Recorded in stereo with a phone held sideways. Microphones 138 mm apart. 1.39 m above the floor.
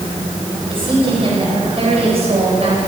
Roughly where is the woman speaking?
Right.